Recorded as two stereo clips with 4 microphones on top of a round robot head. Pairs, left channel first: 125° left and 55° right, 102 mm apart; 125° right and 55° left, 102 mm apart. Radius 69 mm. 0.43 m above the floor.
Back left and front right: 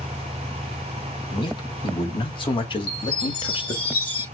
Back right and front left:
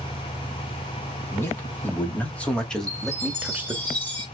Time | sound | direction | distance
1.3 | a man speaking | 170° left | 4 m
2.9 | a chime | 160° left | 4.5 m